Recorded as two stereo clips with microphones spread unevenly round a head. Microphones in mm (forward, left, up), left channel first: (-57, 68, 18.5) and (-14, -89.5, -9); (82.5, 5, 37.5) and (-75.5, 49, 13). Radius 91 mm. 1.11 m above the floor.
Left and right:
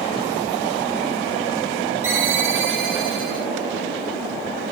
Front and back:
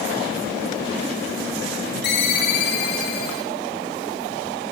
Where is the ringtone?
5° left, 6.5 m.